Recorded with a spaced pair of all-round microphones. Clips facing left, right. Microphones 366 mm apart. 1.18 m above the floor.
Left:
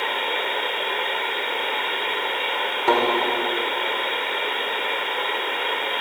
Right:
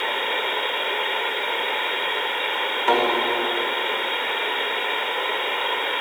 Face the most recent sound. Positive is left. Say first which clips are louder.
# left 1 dB
turn(degrees=55)  # may be behind; listen again after turning